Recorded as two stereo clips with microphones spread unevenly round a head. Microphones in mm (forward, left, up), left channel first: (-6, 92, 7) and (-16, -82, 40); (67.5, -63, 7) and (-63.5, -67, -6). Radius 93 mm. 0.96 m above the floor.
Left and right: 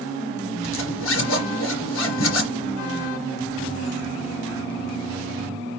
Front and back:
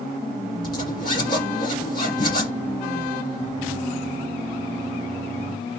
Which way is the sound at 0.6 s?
65° left.